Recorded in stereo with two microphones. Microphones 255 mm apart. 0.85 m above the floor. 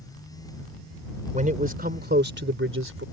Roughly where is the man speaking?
Right.